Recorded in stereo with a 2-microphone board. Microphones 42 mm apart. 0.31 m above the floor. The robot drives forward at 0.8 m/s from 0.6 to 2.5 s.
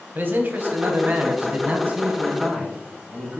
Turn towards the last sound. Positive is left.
turn(degrees=-25)  # may be behind; listen again after turning